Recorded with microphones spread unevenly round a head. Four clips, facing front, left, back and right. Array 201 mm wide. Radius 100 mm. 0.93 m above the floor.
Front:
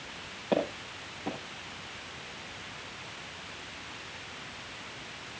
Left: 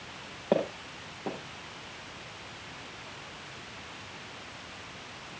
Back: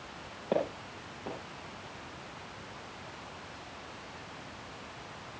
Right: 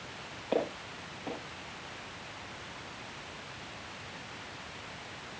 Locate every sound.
0.5 s footsteps: 90° left, 6.5 m